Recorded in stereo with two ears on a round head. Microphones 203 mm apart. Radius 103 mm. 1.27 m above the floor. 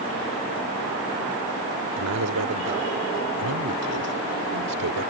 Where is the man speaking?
85° right.